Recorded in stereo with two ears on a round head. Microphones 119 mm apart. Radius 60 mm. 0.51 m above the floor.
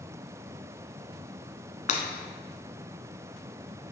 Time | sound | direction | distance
1.9 | breaking glass | 65° left (ahead or behind) | 1.2 m